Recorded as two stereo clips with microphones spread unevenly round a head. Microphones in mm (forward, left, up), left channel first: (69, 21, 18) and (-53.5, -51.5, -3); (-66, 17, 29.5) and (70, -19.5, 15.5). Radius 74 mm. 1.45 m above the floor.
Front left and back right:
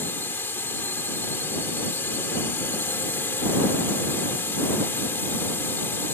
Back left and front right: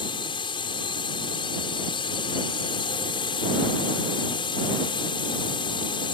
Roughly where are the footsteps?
No footsteps in this recording.